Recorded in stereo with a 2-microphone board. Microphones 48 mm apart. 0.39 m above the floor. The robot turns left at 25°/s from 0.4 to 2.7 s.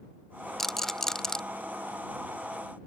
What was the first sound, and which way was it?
A rattle, 10° left (ahead or behind).